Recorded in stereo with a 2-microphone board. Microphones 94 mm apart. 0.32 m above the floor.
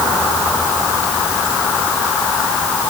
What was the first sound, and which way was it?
Only background noise.